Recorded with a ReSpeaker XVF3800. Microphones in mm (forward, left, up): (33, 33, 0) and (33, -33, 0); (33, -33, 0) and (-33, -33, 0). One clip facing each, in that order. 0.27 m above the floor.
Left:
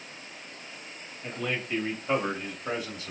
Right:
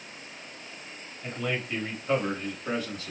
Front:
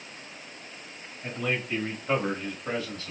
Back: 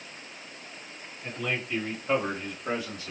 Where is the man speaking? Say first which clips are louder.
Right 1 dB, front 2 dB; 5° right, 1.3 m; by 3.1 s 135° left, 1.3 m.